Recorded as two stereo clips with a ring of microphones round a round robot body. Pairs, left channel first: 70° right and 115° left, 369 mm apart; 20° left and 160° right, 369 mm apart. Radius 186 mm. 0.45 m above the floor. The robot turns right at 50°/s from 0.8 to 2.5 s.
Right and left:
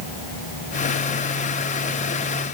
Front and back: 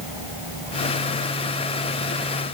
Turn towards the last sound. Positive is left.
No sound to turn to.